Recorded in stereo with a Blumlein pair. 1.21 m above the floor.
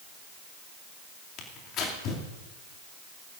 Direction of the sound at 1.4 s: 35° left.